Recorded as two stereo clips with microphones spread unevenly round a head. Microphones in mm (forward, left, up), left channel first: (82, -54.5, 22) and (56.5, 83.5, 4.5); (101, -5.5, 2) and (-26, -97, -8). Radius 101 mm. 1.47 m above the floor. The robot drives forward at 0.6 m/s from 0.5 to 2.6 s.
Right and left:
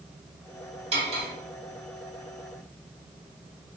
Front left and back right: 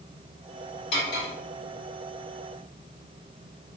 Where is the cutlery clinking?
50° left, 1.8 m; by 1.3 s 60° left, 1.7 m.